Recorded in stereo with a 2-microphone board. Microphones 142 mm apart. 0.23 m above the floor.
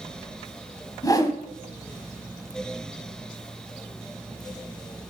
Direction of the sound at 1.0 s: 25° left (ahead or behind).